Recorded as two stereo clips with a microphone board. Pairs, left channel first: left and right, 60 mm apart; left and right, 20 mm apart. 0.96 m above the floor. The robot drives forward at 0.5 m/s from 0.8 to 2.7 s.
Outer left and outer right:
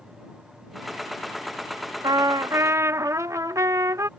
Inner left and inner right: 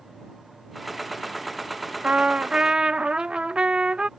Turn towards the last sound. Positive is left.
turn(degrees=-60)  # may be behind; listen again after turning